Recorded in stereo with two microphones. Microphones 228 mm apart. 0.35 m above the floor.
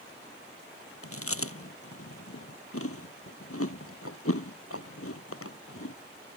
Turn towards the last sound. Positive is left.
turn(degrees=80)